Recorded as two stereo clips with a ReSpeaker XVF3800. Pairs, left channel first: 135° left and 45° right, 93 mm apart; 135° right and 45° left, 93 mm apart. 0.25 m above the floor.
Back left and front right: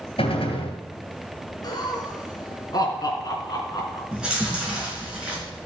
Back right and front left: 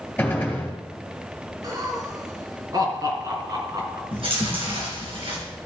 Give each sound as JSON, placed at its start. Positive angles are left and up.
{"t": 0.2, "sound": "a gunshot", "azimuth_deg": 145, "distance_m": 2.5}
{"t": 1.6, "sound": "laughter", "azimuth_deg": 90, "distance_m": 3.5}
{"t": 4.1, "sound": "chewing", "azimuth_deg": 35, "distance_m": 4.0}